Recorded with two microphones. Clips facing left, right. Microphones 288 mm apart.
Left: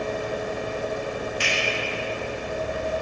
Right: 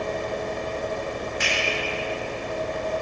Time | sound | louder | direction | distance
1.4 | a finger snap | even | 35° left (ahead or behind) | 1.6 m